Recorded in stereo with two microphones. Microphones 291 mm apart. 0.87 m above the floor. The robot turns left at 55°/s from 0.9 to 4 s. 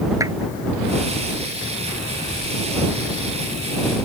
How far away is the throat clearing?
I don't hear throat clearing.